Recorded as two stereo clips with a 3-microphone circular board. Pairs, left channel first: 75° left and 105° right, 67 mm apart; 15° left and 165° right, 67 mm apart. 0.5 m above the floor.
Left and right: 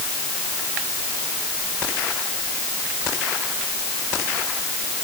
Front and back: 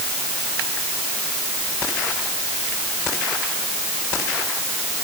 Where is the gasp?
No gasp in this recording.